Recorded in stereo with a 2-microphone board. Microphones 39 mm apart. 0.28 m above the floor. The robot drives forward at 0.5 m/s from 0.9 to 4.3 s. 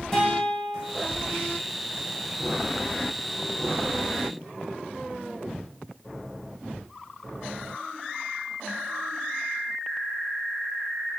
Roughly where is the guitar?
Centre.